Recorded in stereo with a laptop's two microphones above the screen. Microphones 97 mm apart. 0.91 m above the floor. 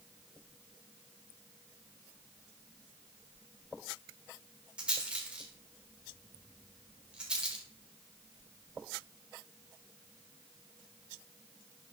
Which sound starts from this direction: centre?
A rattle, at 4.8 s.